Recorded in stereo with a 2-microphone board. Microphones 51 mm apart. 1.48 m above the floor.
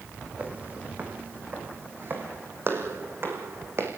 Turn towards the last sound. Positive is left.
turn(degrees=-50)  # may be behind; listen again after turning